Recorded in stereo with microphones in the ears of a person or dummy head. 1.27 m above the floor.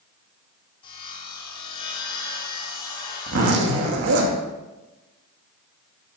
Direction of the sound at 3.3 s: 55° right (ahead or behind).